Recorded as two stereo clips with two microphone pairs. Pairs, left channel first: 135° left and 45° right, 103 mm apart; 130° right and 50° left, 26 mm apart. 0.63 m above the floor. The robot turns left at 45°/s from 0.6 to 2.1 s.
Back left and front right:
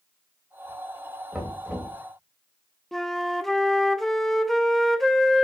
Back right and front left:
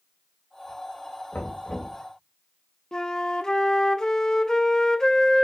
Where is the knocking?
125° right, 2.5 m; by 2.0 s 155° right, 2.5 m.